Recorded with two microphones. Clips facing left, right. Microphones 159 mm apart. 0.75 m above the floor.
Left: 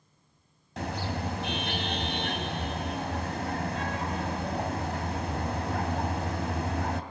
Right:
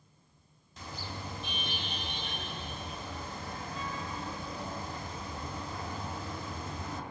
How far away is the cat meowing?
No cat meowing in this recording.